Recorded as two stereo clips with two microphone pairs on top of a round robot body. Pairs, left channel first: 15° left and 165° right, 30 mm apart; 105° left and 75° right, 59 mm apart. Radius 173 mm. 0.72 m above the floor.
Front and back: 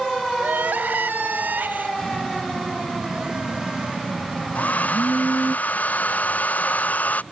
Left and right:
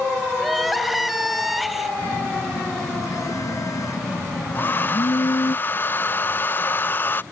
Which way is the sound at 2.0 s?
130° left.